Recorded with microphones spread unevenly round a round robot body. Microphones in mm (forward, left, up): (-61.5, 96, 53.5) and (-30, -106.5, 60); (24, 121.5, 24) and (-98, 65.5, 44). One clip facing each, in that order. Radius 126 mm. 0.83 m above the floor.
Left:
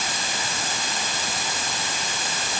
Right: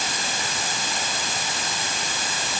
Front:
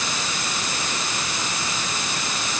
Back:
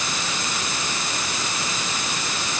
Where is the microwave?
I don't hear a microwave.